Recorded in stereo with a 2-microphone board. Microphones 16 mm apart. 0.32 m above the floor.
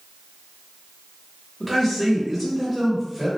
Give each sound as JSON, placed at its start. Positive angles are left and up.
{"t": 1.6, "sound": "a man speaking", "side_deg": -5, "distance_m": 0.9}